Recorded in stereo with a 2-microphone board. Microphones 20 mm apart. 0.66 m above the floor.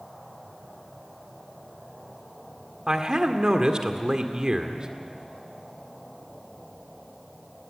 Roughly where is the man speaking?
Right.